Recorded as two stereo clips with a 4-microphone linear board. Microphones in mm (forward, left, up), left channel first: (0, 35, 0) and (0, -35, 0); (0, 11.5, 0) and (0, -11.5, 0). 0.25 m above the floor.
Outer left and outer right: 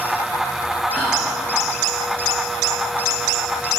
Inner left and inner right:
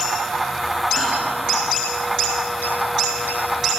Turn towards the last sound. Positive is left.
turn(degrees=-5)  # may be behind; listen again after turning